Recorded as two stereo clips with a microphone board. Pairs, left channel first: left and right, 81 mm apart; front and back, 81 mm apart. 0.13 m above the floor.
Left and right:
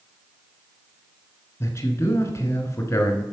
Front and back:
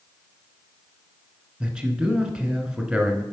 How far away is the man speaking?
About 1.2 m.